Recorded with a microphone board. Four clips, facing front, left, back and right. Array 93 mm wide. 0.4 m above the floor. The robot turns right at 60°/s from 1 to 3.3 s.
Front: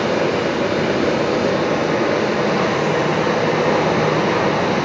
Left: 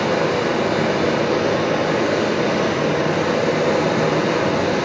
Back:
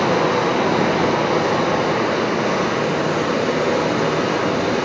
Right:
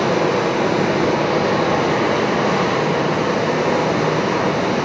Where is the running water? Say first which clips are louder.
Right 2 dB, back 1 dB; 165° right, 1.5 m; by 4.9 s 25° right, 1.5 m.